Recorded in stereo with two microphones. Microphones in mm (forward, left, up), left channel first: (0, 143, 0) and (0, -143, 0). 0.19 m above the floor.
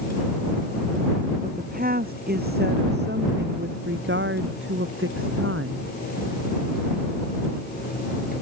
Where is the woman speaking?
30° right (ahead or behind); by 5.9 s 50° right (ahead or behind).